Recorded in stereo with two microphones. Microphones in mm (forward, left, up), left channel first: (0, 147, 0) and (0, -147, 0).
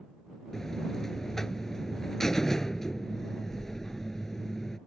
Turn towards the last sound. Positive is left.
turn(degrees=0)  # may be behind; listen again after turning